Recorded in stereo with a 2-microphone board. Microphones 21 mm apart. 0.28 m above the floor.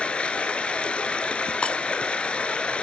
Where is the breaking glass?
65° left (ahead or behind), 0.6 m.